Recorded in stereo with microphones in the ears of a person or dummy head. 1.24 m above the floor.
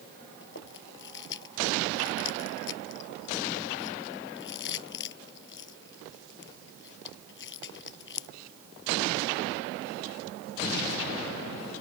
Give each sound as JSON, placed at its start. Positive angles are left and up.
{"t": 0.4, "sound": "chewing", "side_deg": 65}